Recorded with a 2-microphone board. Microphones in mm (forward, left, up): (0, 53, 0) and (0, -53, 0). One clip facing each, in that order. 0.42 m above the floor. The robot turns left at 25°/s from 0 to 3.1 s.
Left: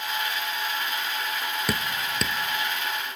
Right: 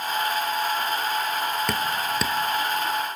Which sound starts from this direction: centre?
Dripping, at 1.7 s.